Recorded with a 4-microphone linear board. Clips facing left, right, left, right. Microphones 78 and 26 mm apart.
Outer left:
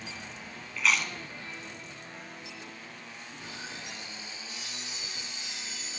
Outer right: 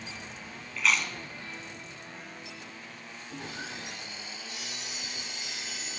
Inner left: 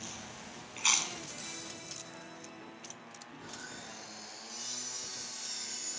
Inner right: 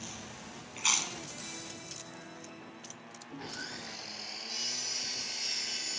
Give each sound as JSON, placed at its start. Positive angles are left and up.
{"t": 0.8, "sound": "chewing", "side_deg": 0, "distance_m": 0.6}
{"t": 3.3, "sound": "sawing", "side_deg": -70, "distance_m": 0.6}